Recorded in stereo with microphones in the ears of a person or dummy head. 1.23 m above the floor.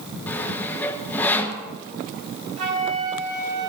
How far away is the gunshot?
I don't hear a gunshot.